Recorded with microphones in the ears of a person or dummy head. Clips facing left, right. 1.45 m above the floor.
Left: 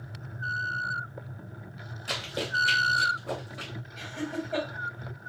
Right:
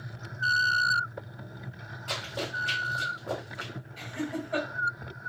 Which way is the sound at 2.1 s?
25° left (ahead or behind).